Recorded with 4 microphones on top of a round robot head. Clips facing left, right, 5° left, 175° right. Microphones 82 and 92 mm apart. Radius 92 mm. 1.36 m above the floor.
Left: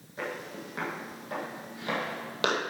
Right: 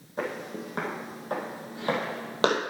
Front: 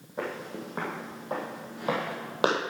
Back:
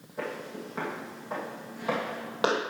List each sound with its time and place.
0.2 s footsteps: 50° right, 2.5 m; by 2.6 s 60° right, 1.6 m